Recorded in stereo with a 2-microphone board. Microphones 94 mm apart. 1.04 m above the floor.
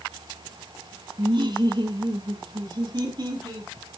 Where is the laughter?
55° right (ahead or behind), 2.0 m; by 3.7 s 45° right (ahead or behind), 5.5 m.